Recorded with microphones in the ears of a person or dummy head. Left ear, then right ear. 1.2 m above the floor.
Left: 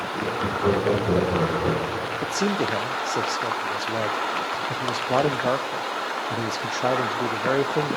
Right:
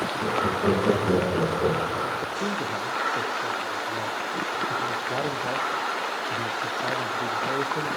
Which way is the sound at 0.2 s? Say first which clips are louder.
Left 1 dB; 25° right (ahead or behind).